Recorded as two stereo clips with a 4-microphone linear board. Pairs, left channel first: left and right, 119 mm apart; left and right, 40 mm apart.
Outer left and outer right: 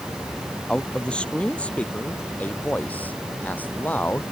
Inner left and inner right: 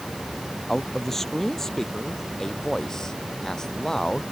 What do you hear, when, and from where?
0.7 s a man speaking: 5° left (ahead or behind); by 4.2 s 15° left (ahead or behind)